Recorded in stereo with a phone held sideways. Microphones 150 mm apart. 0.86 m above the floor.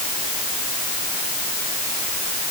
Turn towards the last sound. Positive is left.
No sound to turn to.